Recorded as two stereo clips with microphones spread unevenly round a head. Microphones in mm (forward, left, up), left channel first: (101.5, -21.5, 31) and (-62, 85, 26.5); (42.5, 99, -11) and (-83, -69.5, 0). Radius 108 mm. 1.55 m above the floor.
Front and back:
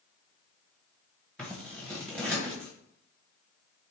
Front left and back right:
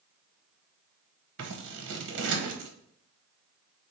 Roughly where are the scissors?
Behind right.